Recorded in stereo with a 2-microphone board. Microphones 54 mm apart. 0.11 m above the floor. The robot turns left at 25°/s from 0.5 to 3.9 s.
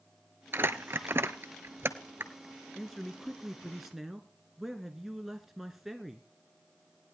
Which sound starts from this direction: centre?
A man speaking, at 2.8 s.